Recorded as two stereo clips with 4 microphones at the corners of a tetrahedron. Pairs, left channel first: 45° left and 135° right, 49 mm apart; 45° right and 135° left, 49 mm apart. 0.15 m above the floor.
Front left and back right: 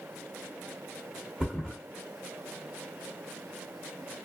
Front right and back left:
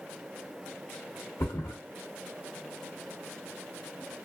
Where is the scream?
I don't hear a scream.